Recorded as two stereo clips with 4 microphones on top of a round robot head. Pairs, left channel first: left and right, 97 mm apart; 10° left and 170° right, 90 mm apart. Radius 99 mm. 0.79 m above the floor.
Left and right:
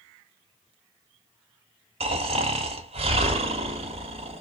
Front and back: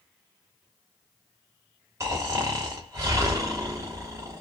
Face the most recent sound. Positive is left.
turn(degrees=-110)